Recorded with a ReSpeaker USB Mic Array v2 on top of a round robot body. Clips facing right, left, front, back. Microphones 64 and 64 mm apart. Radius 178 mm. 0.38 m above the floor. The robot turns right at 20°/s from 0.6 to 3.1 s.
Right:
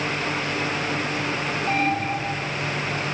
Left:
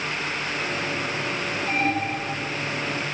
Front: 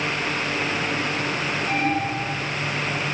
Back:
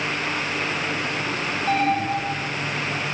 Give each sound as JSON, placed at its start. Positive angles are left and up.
{"t": 1.7, "sound": "an alarm", "azimuth_deg": -150, "distance_m": 10.0}